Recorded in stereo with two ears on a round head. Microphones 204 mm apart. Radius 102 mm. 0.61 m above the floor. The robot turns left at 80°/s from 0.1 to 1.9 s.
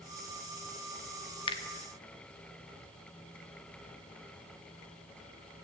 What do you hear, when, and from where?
1.5 s a finger snap: 25° left (ahead or behind), 1.0 m; by 1.6 s 20° left (ahead or behind), 1.0 m